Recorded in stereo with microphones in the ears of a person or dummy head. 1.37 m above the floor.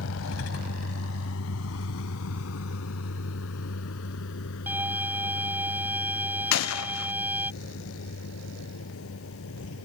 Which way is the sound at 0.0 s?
70° left (ahead or behind).